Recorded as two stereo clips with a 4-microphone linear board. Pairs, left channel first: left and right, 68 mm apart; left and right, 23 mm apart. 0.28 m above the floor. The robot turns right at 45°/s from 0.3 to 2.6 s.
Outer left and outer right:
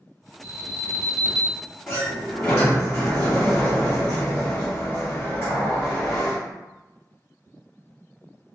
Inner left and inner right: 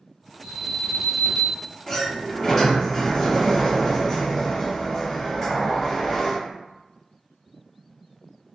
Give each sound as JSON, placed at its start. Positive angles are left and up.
{"t": 0.4, "sound": "an alarm", "side_deg": -30, "distance_m": 0.9}
{"t": 1.9, "sound": "a sliding door", "azimuth_deg": 120, "distance_m": 1.7}